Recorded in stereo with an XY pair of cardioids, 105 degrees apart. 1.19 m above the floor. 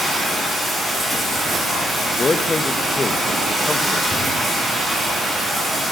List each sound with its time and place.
0.0 s running water: 5° left, 7 m
2.2 s a man speaking: 25° left, 1.2 m
4.1 s a drawer: 5° left, 2.5 m